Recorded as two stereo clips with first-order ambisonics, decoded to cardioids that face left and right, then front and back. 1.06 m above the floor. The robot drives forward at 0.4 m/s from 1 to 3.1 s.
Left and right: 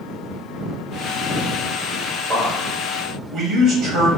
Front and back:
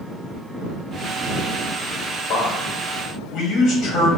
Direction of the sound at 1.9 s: 40° right.